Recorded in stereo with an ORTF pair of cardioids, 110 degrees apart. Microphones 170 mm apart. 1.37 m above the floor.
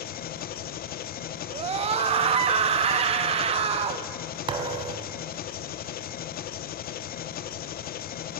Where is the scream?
35° right, 2.5 m.